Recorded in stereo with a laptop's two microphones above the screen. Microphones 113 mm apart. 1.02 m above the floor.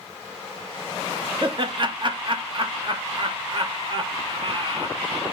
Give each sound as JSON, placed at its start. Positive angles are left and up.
{"t": 1.4, "sound": "laughter", "side_deg": -45, "distance_m": 0.8}